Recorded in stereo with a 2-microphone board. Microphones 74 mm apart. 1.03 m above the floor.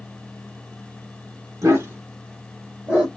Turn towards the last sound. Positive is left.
turn(degrees=-20)  # may be behind; listen again after turning